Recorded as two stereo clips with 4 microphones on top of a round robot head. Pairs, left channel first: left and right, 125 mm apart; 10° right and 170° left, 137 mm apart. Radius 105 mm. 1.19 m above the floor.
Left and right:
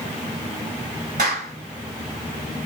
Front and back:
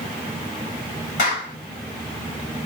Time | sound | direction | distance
1.2 | a clap | 45° right | 6.5 m